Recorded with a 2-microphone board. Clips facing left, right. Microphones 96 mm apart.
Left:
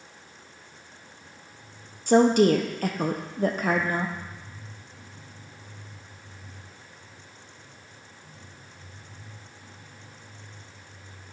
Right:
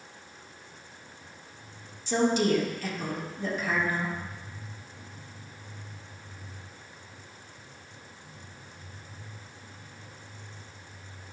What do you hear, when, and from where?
2.1 s a woman speaking: 60° left (ahead or behind), 0.6 m